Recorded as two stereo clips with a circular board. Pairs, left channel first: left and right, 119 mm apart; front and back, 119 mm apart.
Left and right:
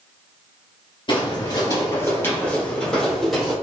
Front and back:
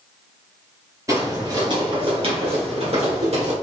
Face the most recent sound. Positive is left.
turn(degrees=180)